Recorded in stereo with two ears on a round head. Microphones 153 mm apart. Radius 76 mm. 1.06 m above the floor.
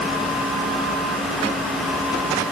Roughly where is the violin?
No violin in this recording.